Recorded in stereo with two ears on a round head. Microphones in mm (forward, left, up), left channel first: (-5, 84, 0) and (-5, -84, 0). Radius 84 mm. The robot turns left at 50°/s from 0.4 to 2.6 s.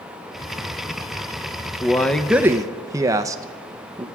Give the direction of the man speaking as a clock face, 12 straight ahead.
11 o'clock.